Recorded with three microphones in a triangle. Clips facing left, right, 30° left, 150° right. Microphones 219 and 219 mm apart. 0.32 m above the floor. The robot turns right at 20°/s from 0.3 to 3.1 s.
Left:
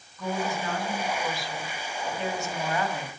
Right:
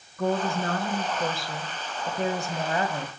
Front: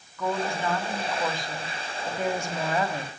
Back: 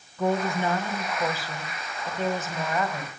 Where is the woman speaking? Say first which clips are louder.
Right 4 dB, back 3 dB; 90° right, 2.5 m; by 3.1 s 30° right, 2.5 m.